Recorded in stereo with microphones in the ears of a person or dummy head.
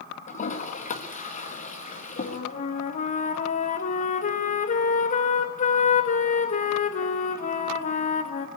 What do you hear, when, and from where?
0.3 s a toilet flushing: 45° left (ahead or behind), 1.6 m
2.2 s a flute: 45° left (ahead or behind), 1.3 m